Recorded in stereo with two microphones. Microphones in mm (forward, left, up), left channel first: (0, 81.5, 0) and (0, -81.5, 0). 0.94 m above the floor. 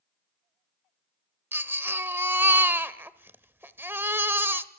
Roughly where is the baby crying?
Centre.